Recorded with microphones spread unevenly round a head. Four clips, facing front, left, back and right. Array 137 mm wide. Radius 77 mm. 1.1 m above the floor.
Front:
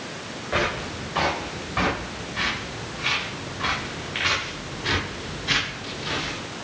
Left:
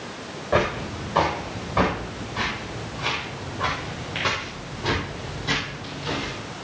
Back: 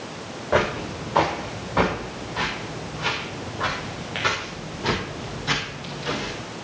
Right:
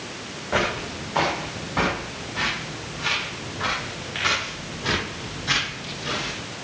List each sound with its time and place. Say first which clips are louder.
0.5 s footsteps: left 2 dB, back 4 dB; 165° left, 4 m; by 6.3 s 175° left, 12 m